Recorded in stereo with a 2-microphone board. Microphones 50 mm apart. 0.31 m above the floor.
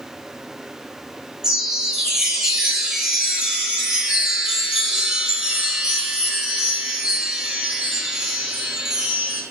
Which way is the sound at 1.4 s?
15° right (ahead or behind).